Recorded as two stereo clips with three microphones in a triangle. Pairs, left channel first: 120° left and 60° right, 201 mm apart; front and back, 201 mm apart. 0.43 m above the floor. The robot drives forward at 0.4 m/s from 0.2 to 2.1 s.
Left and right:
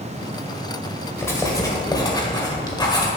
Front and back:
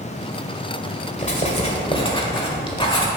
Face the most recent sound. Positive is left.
turn(degrees=60)